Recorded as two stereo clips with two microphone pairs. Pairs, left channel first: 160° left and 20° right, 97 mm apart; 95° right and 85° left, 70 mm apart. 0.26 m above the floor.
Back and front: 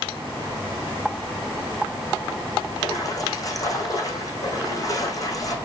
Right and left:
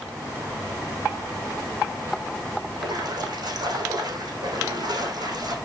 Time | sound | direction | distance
2.8 | a splash | 110° left | 4.5 m